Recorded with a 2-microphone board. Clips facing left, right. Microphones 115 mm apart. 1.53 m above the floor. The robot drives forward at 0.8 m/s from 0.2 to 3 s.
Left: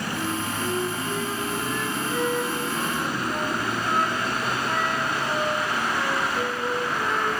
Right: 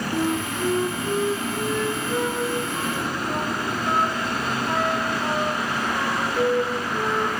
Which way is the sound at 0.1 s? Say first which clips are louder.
Right 6 dB; 45° right (ahead or behind).